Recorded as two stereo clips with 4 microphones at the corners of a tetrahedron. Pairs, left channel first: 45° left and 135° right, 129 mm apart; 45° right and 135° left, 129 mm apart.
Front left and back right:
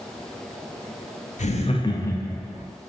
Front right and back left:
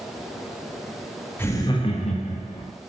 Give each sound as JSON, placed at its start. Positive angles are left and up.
{"t": 1.4, "sound": "laughter", "azimuth_deg": 25, "distance_m": 0.6}